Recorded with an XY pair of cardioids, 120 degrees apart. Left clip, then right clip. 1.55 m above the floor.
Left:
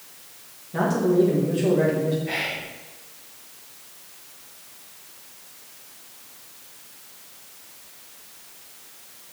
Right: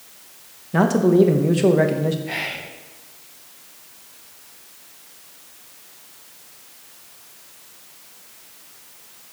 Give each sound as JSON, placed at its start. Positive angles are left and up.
{"t": 0.7, "sound": "a man speaking", "azimuth_deg": -50, "distance_m": 1.0}
{"t": 2.2, "sound": "whispering", "azimuth_deg": 10, "distance_m": 1.2}